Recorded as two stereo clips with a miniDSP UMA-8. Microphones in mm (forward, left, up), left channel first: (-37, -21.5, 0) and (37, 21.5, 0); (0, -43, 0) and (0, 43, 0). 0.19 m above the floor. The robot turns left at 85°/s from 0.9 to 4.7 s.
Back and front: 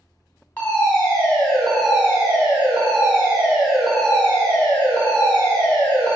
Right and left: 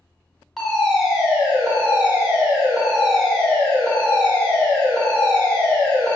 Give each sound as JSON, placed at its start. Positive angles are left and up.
{"t": 0.6, "sound": "a fire alarm", "azimuth_deg": -175, "distance_m": 2.0}